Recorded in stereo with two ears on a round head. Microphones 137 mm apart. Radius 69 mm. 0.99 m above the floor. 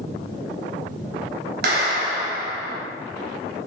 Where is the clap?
70° right (ahead or behind), 4 m.